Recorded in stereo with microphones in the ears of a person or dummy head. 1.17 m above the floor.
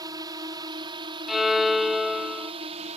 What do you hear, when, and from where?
0.0 s a drone: 20° right (ahead or behind); by 3.0 s 30° right (ahead or behind)
1.3 s a violin: centre (ahead or behind)